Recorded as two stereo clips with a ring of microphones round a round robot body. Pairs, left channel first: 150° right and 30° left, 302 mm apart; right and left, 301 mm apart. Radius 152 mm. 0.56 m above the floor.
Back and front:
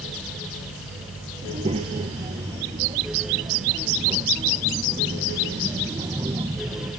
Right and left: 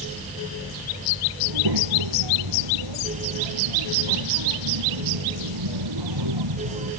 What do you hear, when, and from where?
1.4 s a child speaking: 100° left; by 6.9 s 110° left